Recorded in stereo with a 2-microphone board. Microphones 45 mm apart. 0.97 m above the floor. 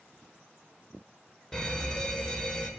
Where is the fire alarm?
15° left (ahead or behind), 1.4 m.